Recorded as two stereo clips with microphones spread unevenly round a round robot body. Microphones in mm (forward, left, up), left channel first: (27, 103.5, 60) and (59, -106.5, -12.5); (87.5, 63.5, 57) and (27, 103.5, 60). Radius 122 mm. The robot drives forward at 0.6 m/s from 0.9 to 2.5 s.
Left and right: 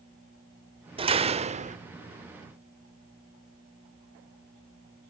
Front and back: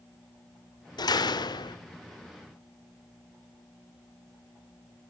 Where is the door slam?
20° right, 1.3 m; by 1.8 s 30° right, 0.8 m.